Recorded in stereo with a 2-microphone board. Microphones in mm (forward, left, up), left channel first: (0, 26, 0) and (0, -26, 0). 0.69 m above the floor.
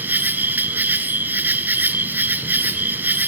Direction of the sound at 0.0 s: 35° right (ahead or behind).